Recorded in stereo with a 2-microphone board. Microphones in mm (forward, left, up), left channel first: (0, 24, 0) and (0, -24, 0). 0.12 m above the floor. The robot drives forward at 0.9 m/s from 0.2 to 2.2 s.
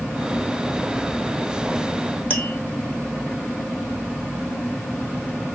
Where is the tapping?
25° left (ahead or behind), 1.5 m.